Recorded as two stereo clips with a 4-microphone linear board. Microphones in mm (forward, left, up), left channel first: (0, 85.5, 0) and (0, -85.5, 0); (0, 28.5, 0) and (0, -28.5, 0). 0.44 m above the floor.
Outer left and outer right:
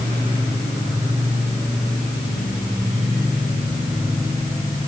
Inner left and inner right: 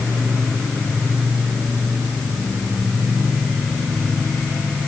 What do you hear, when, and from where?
Only background noise.